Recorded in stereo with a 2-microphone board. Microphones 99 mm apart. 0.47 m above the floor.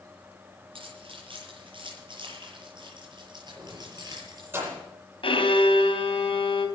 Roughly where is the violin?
Left.